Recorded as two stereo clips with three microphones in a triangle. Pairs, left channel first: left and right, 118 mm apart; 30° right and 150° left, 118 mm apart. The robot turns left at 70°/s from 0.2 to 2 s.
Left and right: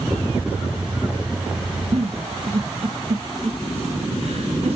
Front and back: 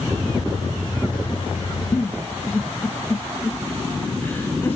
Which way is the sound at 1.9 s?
95° right.